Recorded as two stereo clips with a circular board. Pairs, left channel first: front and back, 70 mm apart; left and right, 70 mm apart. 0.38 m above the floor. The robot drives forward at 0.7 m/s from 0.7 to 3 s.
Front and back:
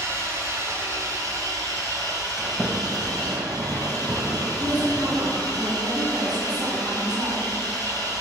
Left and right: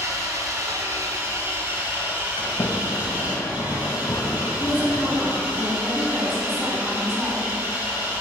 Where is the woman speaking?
165° right, 2.5 m.